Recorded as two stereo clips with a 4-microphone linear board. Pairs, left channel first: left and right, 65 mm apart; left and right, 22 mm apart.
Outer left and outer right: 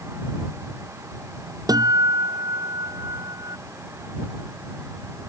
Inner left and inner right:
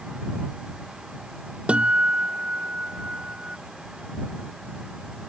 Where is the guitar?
80° right.